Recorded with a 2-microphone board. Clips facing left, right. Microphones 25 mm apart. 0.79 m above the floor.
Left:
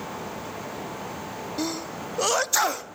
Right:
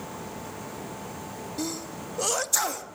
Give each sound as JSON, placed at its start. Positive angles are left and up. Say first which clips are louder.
{"t": 1.6, "sound": "a sneeze", "louder": "left 3 dB", "side_deg": 20, "distance_m": 1.0}